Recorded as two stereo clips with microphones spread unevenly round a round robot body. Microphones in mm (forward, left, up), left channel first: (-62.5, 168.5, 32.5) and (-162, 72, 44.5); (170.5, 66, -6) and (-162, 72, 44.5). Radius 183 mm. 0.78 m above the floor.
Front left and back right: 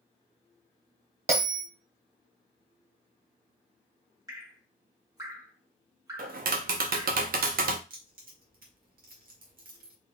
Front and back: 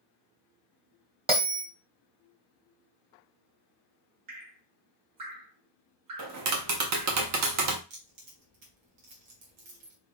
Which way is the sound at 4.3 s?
155° left.